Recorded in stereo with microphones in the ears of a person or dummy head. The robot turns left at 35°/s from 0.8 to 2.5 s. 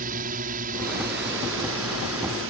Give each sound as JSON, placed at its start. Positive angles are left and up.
{"t": 0.0, "sound": "a drone", "azimuth_deg": -55}